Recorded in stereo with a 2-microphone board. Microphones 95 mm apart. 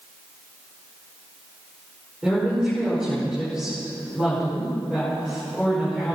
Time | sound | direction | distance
2.2 | a woman speaking | 5° right (ahead or behind) | 5.5 m